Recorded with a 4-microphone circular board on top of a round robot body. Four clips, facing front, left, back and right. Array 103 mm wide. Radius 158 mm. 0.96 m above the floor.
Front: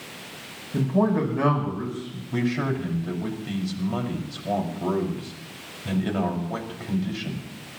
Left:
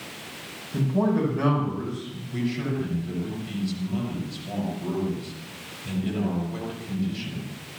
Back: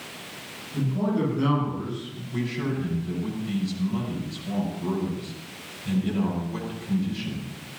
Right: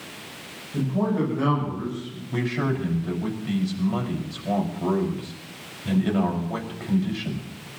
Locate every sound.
0.7 s a man speaking: 5° left, 9.5 m
2.3 s a man speaking: 40° right, 6 m